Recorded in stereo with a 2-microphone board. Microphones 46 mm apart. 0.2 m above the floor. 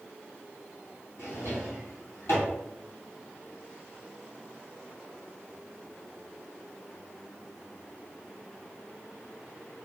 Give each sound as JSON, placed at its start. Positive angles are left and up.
{"t": 1.2, "sound": "a drawer", "side_deg": 55, "distance_m": 1.8}